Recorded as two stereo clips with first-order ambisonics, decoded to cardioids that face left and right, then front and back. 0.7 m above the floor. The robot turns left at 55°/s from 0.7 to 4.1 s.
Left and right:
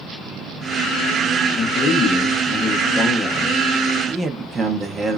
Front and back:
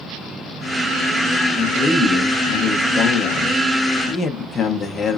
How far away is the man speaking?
About 0.7 m.